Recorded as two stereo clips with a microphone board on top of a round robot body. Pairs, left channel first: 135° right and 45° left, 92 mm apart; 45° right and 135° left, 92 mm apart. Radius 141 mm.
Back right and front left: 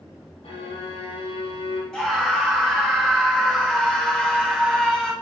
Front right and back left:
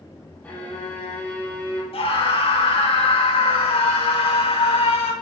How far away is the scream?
About 4.5 m.